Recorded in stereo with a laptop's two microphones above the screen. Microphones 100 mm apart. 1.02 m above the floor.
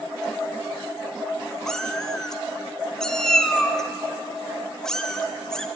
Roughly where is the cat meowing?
Centre.